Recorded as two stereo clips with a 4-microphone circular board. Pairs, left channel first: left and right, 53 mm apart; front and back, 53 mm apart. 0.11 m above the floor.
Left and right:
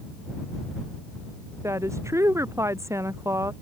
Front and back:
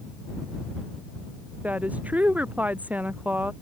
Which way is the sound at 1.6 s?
115° right.